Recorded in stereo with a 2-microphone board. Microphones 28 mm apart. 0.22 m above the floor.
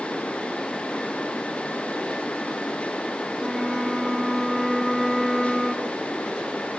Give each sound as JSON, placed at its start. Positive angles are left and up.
{"t": 3.4, "sound": "a flute", "side_deg": 0, "distance_m": 1.2}